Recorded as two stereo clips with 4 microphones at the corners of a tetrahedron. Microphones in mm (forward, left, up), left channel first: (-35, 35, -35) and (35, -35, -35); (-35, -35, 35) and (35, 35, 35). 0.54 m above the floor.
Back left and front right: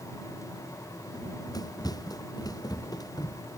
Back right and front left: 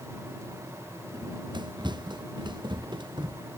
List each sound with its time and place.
1.1 s running footsteps: 85° left